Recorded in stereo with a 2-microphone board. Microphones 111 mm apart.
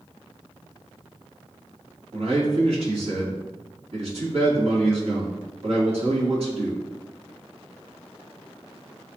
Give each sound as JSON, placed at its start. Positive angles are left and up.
{"t": 2.1, "sound": "a man speaking", "side_deg": -65, "distance_m": 2.5}